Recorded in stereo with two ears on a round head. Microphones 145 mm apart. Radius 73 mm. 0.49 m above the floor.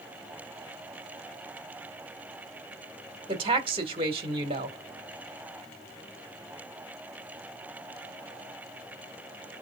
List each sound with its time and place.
3.3 s a woman speaking: 30° right (ahead or behind), 1.3 m